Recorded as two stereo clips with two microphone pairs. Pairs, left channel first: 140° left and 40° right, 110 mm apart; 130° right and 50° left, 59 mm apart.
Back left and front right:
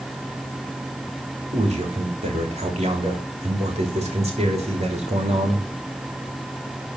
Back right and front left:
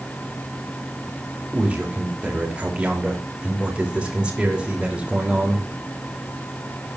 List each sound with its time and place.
1.5 s a man speaking: 25° right, 3 m